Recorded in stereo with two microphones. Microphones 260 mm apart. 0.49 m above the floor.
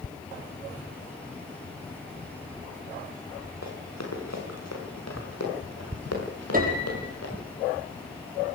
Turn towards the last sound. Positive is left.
turn(degrees=-35)  # may be behind; listen again after turning